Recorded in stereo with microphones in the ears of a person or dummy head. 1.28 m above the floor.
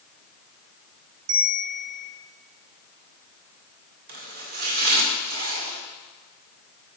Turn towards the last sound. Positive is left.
turn(degrees=-55)  # may be behind; listen again after turning